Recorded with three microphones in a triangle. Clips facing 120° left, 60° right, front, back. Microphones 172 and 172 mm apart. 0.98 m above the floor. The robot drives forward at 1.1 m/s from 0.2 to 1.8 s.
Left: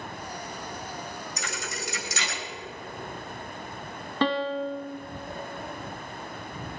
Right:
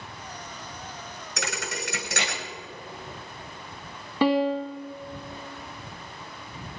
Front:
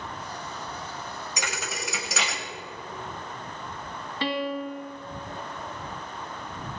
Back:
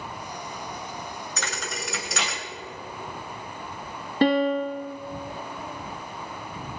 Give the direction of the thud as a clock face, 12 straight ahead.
3 o'clock.